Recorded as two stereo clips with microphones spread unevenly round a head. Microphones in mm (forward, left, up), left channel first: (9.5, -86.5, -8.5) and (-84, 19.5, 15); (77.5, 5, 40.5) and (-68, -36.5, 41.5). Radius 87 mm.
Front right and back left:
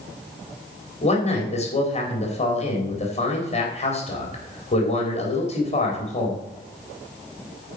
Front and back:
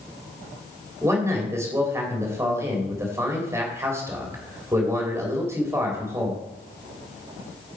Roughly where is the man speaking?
Right.